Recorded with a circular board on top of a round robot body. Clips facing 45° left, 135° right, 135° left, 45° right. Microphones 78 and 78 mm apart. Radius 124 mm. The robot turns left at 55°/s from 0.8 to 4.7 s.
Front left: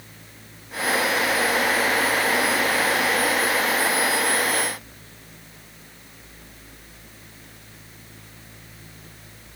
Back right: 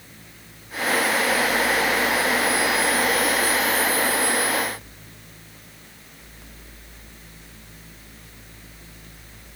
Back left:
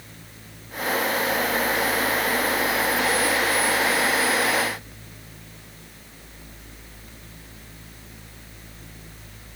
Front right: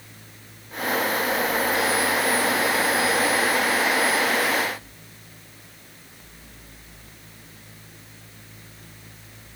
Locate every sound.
Only background noise.